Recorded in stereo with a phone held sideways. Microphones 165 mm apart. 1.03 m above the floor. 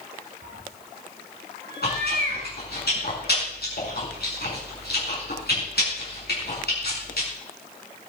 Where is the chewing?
75° left (ahead or behind), 6 m.